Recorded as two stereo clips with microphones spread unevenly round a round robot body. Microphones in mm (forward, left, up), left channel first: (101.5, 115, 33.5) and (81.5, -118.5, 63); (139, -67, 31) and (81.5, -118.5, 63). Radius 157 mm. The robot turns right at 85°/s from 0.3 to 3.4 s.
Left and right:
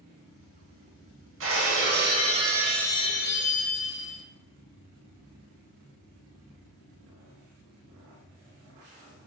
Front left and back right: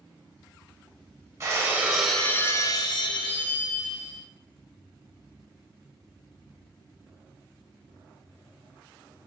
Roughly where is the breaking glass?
Behind right.